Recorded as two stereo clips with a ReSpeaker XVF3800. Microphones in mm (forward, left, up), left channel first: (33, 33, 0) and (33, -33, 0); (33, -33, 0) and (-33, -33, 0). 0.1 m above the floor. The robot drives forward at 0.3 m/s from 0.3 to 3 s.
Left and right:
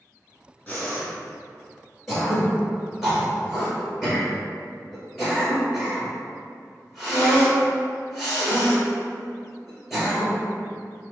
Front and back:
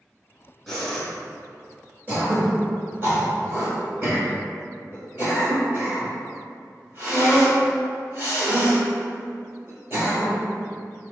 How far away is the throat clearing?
About 1.6 m.